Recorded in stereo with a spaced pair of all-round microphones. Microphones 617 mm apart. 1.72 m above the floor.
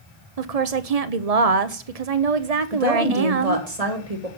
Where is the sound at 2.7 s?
70° right (ahead or behind), 2.5 m.